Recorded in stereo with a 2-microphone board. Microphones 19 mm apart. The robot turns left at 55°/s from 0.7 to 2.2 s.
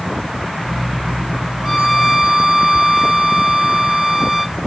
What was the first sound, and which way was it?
A violin, 20° left.